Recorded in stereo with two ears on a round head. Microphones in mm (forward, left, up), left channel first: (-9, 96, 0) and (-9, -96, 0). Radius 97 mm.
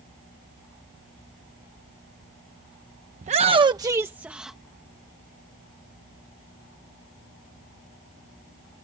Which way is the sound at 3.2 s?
35° right (ahead or behind).